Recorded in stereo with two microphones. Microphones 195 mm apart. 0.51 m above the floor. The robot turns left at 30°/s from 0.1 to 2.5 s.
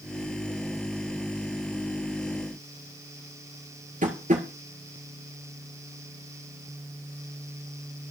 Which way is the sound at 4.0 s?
40° right (ahead or behind).